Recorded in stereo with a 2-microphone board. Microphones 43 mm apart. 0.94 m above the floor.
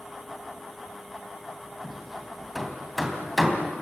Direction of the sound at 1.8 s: Centre (ahead or behind).